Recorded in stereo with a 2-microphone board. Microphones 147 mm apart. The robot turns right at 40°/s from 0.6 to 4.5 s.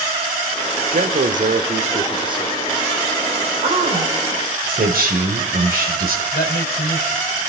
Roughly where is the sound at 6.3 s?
Left.